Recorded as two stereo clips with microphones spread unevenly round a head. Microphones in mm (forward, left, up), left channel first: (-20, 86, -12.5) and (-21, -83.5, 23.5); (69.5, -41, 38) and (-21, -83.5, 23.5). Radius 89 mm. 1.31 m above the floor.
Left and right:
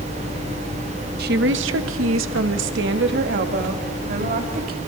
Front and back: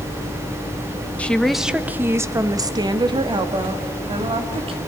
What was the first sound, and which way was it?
A woman speaking, 50° right.